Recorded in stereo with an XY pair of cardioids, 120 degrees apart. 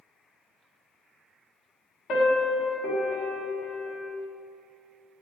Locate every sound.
2.1 s a piano: 60° left, 1.3 m